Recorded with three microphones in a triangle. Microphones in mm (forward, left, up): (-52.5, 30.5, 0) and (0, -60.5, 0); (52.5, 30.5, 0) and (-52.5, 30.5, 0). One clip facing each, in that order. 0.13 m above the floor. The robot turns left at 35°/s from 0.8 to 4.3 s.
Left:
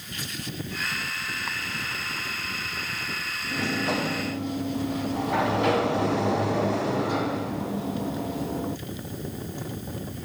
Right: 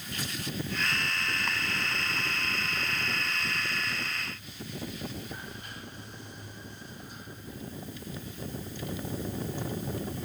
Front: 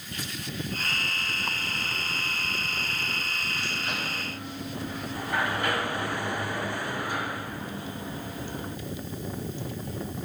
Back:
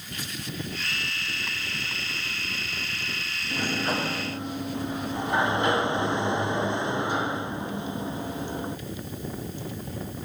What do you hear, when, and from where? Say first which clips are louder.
3.5 s a sliding door: left 9 dB, back 10 dB; 140° left; by 8.8 s 110° left